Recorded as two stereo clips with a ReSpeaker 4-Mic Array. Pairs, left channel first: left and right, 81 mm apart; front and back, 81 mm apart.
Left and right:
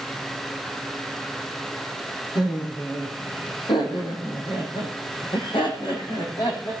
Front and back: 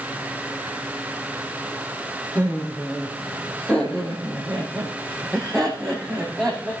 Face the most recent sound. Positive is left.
turn(degrees=85)